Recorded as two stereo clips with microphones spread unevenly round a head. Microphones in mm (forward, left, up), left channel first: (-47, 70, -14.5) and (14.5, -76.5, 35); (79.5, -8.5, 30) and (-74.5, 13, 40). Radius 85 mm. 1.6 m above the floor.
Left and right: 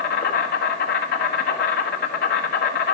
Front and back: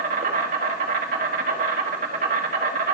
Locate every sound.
0.0 s an insect: 140° left, 1.6 m